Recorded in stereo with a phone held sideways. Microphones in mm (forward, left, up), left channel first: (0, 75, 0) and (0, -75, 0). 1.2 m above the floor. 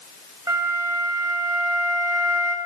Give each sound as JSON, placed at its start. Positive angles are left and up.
{"t": 0.5, "sound": "a flute", "side_deg": -25, "distance_m": 1.6}